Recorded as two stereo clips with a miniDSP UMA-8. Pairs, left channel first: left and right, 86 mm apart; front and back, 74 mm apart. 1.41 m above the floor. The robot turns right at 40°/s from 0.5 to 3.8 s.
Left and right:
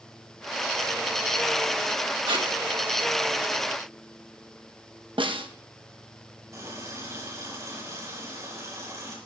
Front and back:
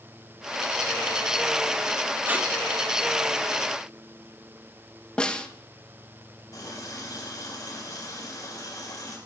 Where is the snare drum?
75° right, 1.1 m.